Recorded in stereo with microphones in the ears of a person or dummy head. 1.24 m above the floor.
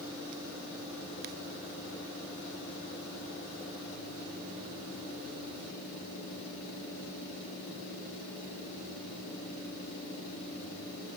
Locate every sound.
Only background noise.